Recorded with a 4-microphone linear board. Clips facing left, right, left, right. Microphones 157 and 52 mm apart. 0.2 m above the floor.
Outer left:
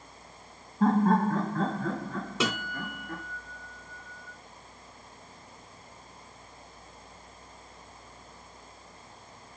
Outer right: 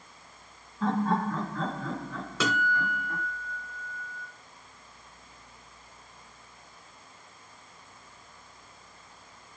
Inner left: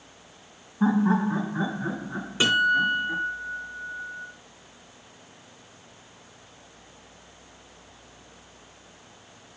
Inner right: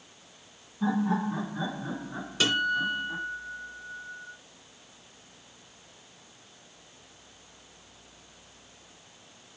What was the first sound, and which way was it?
Laughter, 50° left (ahead or behind).